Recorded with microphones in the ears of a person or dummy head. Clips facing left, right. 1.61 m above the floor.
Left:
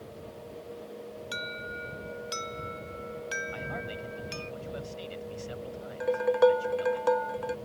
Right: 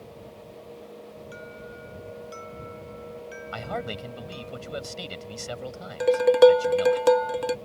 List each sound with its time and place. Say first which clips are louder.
1.3 s an alarm: even; 75° left (ahead or behind)
3.5 s a man speaking: right 5 dB; 85° right
6.0 s dishes clattering: right 7 dB; 30° right (ahead or behind)